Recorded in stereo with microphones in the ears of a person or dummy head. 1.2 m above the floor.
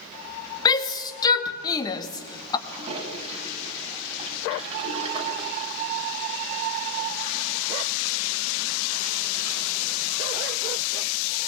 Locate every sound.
0.7 s a shout: 20° left (ahead or behind), 1.6 m
2.7 s a toilet flushing: 30° right (ahead or behind), 3.5 m